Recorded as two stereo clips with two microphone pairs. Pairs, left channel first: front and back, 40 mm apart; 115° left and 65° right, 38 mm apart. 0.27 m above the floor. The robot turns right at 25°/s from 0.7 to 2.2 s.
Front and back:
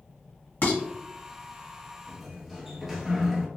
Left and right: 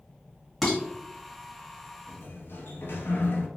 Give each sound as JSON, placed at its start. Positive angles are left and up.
{"t": 0.6, "sound": "dishes clattering", "azimuth_deg": 25, "distance_m": 1.6}
{"t": 2.1, "sound": "a sliding door", "azimuth_deg": 90, "distance_m": 0.8}